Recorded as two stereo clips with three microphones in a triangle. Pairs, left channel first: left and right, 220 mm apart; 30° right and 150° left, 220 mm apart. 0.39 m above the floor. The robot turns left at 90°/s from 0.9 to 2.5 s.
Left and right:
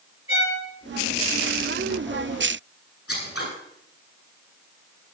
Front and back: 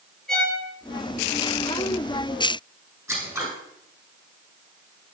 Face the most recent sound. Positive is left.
turn(degrees=75)